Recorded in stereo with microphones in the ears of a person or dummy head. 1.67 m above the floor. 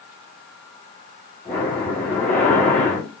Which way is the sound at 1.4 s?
10° left (ahead or behind).